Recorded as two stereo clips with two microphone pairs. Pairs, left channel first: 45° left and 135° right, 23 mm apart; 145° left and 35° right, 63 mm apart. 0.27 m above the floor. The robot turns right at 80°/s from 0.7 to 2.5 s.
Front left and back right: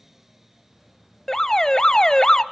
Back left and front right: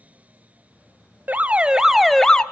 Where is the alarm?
5° right, 0.7 m; by 2.4 s 85° left, 0.7 m.